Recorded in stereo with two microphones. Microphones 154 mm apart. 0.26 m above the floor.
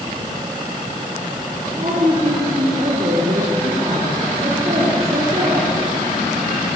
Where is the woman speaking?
40° right (ahead or behind), 5 m.